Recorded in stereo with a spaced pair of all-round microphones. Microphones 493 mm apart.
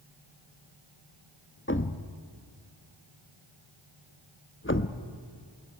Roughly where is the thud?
Left.